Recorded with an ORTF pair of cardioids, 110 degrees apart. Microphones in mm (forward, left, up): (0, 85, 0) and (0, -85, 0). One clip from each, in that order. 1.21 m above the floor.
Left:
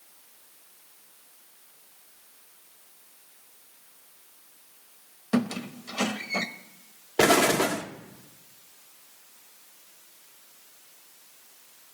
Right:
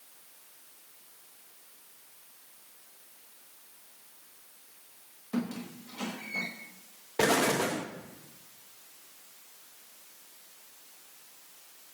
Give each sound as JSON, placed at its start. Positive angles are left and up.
{"t": 5.3, "sound": "a squeak", "azimuth_deg": 70, "distance_m": 1.0}
{"t": 7.2, "sound": "an explosion", "azimuth_deg": 30, "distance_m": 1.1}